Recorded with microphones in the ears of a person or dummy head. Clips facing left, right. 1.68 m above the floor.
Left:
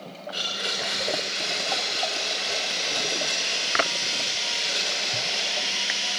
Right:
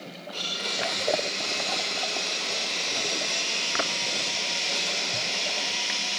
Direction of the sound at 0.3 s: 10° left (ahead or behind).